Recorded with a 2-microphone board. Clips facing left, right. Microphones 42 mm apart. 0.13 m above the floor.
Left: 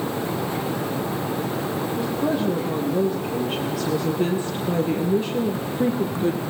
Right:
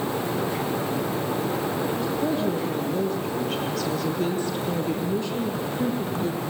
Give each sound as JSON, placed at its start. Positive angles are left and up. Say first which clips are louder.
{"t": 2.0, "sound": "a woman speaking", "louder": "left 2 dB", "side_deg": 10, "distance_m": 4.0}